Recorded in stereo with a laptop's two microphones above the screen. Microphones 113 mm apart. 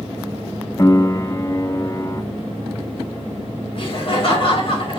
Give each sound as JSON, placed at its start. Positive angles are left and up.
{"t": 0.8, "sound": "a piano", "side_deg": 30, "distance_m": 0.8}
{"t": 3.8, "sound": "laughter", "side_deg": 50, "distance_m": 6.0}